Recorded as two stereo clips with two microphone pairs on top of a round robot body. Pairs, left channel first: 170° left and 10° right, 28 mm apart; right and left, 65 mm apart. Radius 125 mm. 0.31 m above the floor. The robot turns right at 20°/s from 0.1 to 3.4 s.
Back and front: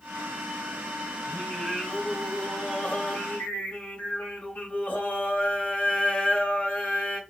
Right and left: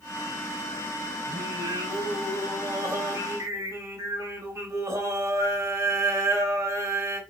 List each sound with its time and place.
1.3 s singing: 95° left, 0.9 m; by 7.2 s 140° left, 0.9 m